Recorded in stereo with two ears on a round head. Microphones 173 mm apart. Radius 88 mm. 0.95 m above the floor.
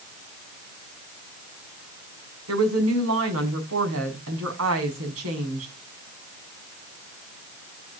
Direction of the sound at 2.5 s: 85° right.